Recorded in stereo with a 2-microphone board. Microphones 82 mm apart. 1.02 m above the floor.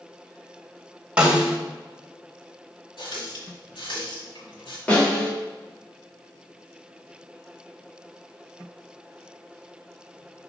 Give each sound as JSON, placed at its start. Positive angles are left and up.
{"t": 1.2, "sound": "a snare drum", "side_deg": -15, "distance_m": 1.2}
{"t": 3.0, "sound": "a running tap", "side_deg": 75, "distance_m": 1.8}
{"t": 4.9, "sound": "a snare drum", "side_deg": 15, "distance_m": 2.5}